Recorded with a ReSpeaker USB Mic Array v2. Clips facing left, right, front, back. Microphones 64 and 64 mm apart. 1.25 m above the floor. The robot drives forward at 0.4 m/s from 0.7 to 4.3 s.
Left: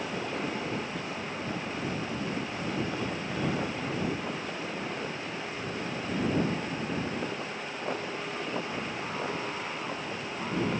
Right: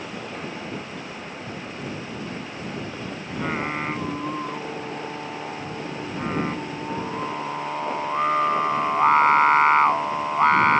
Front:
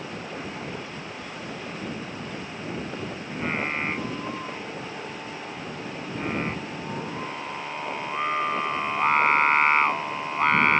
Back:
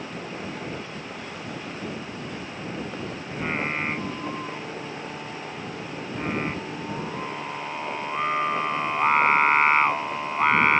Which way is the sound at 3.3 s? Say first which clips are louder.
Right 7 dB, even; 90° right.